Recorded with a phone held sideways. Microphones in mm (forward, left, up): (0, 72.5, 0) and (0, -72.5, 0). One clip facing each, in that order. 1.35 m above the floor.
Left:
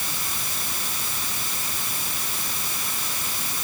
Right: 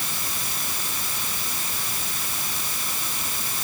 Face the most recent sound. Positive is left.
No sound to turn to.